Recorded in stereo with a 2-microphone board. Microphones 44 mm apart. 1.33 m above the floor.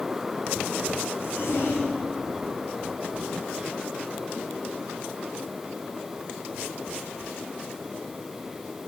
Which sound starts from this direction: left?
A zipper, at 1.1 s.